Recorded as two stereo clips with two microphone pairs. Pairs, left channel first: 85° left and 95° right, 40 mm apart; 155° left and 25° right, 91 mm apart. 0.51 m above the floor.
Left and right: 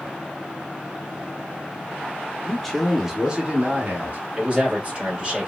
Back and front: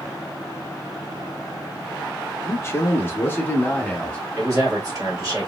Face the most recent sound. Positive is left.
turn(degrees=-45)